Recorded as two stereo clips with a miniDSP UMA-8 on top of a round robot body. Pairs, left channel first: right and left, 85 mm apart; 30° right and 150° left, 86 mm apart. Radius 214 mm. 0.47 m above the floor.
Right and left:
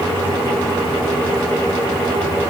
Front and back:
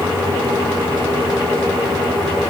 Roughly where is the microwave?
I don't hear a microwave.